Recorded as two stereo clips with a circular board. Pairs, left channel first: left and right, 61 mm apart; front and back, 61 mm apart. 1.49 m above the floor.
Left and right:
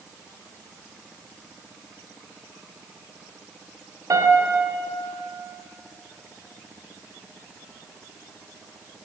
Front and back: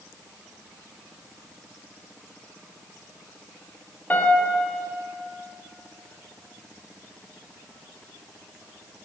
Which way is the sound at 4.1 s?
65° right.